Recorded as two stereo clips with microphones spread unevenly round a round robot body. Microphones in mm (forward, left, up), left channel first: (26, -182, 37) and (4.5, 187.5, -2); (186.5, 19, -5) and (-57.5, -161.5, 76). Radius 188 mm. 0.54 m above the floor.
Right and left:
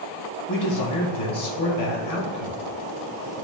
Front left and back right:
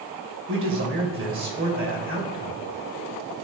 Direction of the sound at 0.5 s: 90° right.